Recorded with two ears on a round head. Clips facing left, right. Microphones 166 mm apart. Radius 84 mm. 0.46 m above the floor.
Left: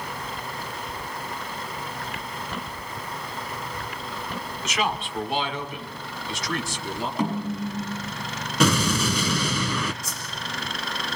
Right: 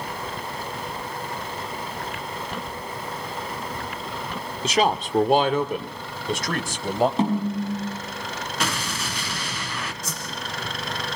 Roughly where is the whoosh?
Right.